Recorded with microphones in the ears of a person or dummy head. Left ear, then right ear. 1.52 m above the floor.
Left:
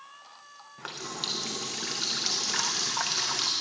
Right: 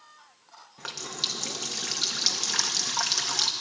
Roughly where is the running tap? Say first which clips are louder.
Right 3 dB; centre.